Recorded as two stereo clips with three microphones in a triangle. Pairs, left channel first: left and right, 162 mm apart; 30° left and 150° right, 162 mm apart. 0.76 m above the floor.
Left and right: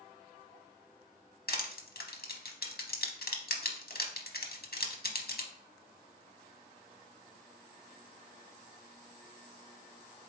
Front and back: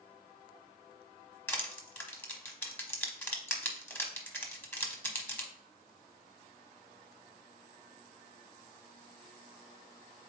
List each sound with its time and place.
1.5 s crushing: 105° left, 0.8 m